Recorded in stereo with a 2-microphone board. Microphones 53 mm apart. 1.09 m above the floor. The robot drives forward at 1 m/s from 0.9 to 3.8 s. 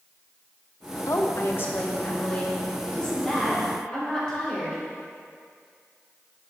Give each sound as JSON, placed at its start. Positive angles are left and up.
{"t": 1.1, "sound": "a woman speaking", "side_deg": 75, "distance_m": 0.7}